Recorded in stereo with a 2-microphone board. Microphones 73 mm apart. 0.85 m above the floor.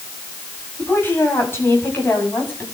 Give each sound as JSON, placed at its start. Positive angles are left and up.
{"t": 0.8, "sound": "a woman speaking", "side_deg": 30, "distance_m": 6.5}